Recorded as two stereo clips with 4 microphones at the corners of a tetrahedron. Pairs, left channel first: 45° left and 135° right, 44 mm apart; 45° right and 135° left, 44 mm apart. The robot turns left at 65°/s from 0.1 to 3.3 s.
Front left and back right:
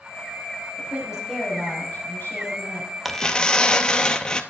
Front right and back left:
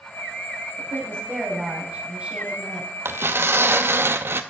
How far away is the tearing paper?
About 0.6 m.